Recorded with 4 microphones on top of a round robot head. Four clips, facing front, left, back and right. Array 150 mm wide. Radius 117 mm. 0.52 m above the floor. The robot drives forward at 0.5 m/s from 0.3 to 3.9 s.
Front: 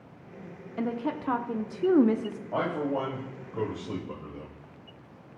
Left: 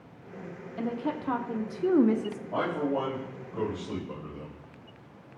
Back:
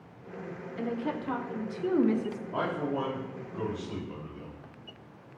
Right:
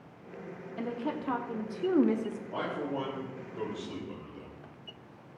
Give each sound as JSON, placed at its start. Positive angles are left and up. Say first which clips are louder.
{"t": 0.8, "sound": "a woman speaking", "louder": "left 3 dB, front 2 dB", "azimuth_deg": 5, "distance_m": 1.4}
{"t": 2.5, "sound": "a man speaking", "louder": "left 7 dB, front 3 dB", "azimuth_deg": 25, "distance_m": 3.5}